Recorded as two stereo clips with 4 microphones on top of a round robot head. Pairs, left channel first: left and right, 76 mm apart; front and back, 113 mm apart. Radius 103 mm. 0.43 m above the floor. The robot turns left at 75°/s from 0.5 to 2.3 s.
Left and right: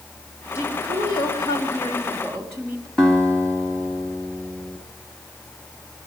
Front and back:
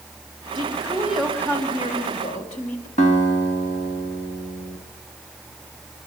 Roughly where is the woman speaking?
Behind left.